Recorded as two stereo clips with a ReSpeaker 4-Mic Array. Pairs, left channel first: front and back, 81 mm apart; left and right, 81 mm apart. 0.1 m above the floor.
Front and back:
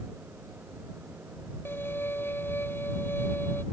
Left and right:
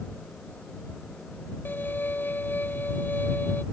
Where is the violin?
40° left.